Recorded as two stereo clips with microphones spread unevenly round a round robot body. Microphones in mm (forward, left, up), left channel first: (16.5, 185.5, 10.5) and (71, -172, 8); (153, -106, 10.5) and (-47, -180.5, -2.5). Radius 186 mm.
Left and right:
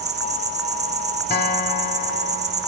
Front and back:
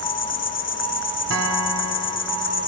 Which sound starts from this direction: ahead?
An insect, at 0.0 s.